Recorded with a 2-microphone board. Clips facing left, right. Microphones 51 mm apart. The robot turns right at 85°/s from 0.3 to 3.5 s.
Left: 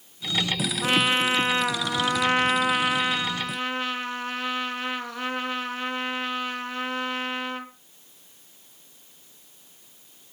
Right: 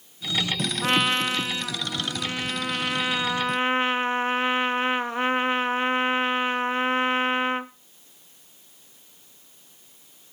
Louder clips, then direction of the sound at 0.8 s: Left 1 dB; 10° right.